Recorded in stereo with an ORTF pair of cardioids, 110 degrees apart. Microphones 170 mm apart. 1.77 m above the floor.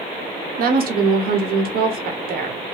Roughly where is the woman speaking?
Ahead right.